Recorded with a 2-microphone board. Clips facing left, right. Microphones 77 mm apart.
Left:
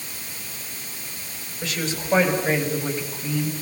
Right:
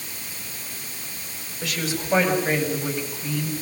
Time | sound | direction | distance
1.6 | a woman speaking | 5° right (ahead or behind) | 7 m